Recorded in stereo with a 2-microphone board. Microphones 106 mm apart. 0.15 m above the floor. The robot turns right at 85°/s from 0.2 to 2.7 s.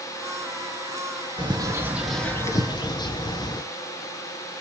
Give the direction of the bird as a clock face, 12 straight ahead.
2 o'clock.